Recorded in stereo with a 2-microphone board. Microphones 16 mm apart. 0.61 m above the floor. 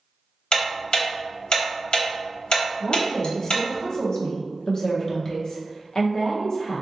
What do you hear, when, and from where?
0.5 s ticking: 70° left (ahead or behind), 0.7 m
2.8 s a woman speaking: 35° left (ahead or behind), 0.8 m